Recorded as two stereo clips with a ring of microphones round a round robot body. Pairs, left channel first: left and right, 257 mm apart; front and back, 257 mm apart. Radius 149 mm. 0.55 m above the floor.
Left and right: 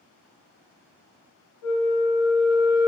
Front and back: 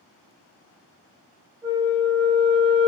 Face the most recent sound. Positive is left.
turn(degrees=105)